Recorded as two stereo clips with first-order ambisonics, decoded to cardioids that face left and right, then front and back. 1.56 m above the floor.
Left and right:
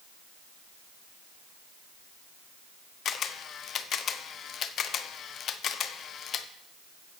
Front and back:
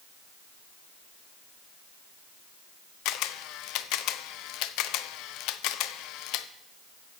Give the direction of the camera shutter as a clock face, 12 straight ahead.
11 o'clock.